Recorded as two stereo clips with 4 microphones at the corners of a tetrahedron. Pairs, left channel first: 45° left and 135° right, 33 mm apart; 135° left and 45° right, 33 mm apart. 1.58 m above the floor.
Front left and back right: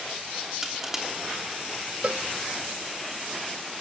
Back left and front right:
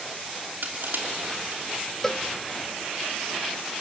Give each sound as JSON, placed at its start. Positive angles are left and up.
{"t": 0.6, "sound": "crushing", "azimuth_deg": -60, "distance_m": 3.0}
{"t": 2.0, "sound": "a cowbell", "azimuth_deg": -155, "distance_m": 0.7}